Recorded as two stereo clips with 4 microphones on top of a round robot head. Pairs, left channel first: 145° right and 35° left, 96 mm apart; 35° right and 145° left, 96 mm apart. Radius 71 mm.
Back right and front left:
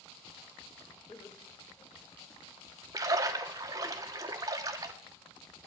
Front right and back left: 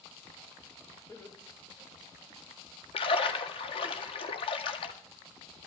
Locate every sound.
1.1 s laughter: 95° right, 5 m; by 2.4 s 85° right, 4 m
2.9 s a splash: 20° right, 1.5 m